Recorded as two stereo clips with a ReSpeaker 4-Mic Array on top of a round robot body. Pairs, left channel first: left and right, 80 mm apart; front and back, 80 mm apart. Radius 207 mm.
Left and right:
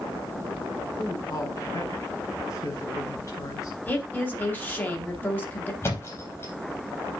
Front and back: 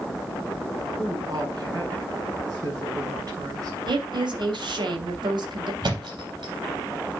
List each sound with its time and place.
1.0 s a woman speaking: 140° left, 6 m
3.9 s a woman speaking: 155° left, 3 m
5.8 s a thud: 150° left, 4 m